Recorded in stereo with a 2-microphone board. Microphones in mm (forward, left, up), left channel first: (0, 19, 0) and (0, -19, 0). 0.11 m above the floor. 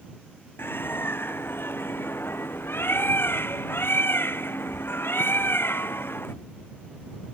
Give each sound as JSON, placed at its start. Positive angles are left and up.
{"t": 0.6, "sound": "a bird", "side_deg": 80}